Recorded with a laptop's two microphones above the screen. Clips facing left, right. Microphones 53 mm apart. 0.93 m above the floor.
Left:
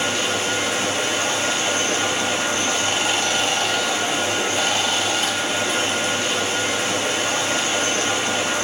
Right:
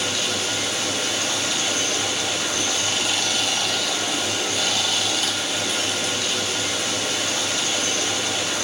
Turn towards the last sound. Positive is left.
turn(degrees=30)  # may be behind; listen again after turning